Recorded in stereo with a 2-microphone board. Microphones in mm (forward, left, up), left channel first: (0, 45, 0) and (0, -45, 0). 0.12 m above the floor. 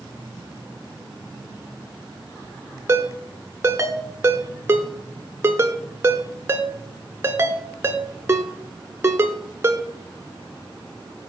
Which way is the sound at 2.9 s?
30° right (ahead or behind).